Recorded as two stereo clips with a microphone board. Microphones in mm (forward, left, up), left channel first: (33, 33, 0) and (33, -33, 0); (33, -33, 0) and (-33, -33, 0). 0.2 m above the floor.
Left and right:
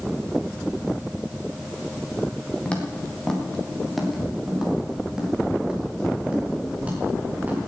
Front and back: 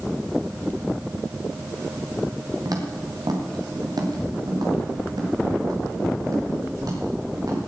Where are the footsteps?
165° left, 3.5 m; by 7.7 s 155° right, 6.5 m.